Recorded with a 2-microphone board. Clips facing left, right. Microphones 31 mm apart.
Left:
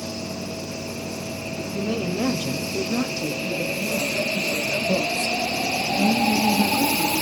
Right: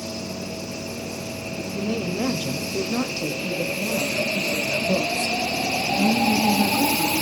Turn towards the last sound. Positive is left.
turn(degrees=-50)  # may be behind; listen again after turning